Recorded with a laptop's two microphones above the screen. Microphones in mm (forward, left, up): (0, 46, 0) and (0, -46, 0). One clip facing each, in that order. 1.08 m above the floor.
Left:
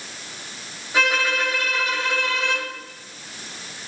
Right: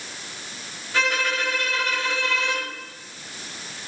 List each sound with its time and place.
0.9 s a violin: 10° left (ahead or behind), 3.5 m